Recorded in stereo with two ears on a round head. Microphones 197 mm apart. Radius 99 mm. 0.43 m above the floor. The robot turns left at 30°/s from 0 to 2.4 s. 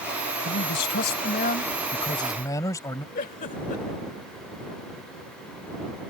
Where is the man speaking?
75° left; by 3.0 s 20° left.